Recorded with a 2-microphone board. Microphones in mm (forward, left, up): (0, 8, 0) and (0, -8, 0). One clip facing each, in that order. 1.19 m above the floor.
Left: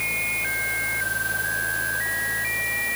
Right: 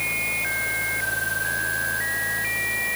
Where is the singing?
I don't hear singing.